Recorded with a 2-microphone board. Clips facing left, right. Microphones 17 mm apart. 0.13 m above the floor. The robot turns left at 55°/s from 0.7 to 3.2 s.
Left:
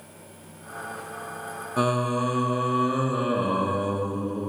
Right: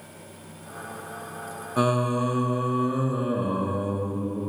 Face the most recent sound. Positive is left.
turn(degrees=100)